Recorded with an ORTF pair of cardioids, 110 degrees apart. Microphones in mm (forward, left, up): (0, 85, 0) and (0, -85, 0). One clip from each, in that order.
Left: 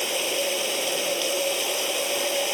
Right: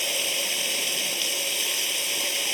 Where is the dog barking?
No dog barking in this recording.